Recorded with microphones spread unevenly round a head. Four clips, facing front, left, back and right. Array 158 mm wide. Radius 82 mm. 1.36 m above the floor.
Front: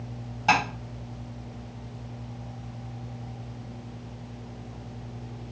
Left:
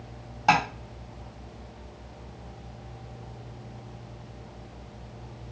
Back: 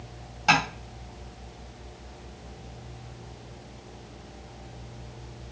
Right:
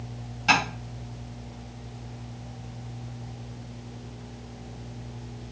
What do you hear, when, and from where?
0.5 s tapping: 90° left, 1.4 m